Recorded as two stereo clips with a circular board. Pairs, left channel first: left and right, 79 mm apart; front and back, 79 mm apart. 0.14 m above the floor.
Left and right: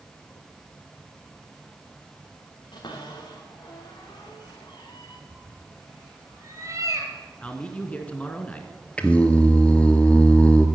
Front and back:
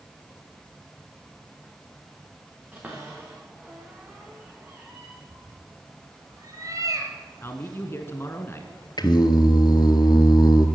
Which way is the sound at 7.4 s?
30° left.